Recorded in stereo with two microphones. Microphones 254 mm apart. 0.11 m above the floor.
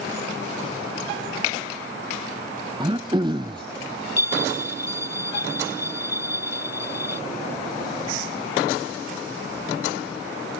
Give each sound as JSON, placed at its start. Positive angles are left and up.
{"t": 2.8, "sound": "throat clearing", "side_deg": -20}
{"t": 4.2, "sound": "a bell", "side_deg": 80}